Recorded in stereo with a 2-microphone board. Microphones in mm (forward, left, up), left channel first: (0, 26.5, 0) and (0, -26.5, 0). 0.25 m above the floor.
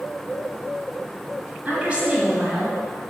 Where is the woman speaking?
25° right (ahead or behind), 1.9 m; by 2.8 s 10° right (ahead or behind), 1.9 m.